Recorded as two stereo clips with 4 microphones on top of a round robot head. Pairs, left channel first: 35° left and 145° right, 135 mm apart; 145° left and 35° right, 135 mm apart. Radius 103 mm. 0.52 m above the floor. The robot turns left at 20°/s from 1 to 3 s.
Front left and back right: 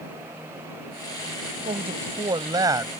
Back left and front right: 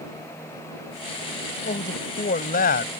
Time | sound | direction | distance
1.6 | a man speaking | 170° left | ?